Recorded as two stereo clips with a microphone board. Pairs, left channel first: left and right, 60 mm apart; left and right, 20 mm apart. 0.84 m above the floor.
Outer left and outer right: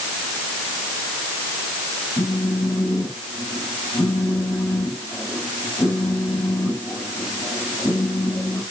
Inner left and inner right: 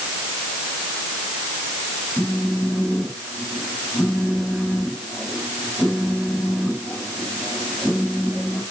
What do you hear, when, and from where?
2.2 s a phone buzzing: 75° left (ahead or behind), 5.5 m